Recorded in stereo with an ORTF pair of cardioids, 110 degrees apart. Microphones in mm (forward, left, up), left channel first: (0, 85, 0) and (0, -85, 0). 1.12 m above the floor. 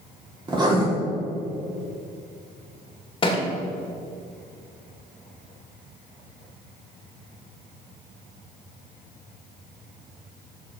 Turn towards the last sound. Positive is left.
turn(degrees=30)